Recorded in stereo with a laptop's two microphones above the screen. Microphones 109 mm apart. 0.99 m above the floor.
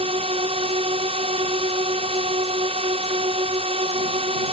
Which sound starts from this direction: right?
A drone, at 0.0 s.